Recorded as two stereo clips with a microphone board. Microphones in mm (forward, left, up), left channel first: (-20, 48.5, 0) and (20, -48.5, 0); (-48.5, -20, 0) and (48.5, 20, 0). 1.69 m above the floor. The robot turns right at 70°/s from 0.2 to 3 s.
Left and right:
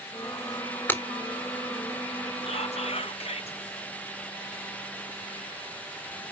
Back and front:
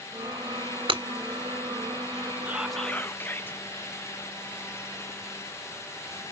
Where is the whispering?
95° left, 1.1 m; by 3.6 s 130° left, 1.1 m.